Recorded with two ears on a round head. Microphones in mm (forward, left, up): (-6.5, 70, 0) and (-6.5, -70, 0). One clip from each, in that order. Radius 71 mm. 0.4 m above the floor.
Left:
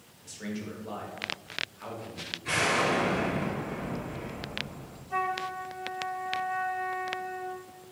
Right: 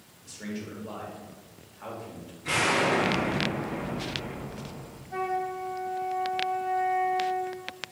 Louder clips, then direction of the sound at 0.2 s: Even; 10° left (ahead or behind).